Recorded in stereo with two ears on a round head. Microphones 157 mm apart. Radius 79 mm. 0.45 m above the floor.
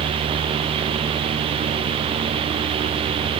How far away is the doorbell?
I don't hear a doorbell.